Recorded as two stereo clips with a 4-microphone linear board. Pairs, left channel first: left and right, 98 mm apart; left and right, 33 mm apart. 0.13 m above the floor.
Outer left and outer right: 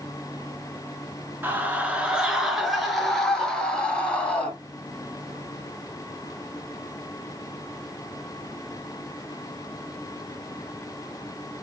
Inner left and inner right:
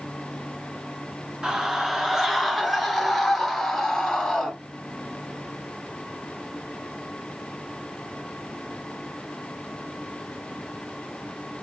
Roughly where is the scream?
Centre.